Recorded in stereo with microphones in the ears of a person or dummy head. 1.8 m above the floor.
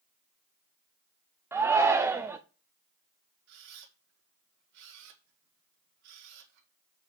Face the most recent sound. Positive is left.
turn(degrees=-65)  # may be behind; listen again after turning